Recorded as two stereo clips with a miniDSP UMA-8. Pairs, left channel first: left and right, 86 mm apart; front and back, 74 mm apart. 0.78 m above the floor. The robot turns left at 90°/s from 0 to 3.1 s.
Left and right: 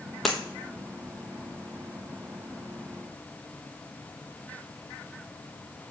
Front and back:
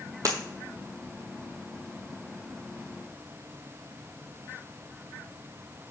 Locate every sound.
0.2 s breaking glass: 175° left, 1.1 m; by 0.4 s 165° left, 1.1 m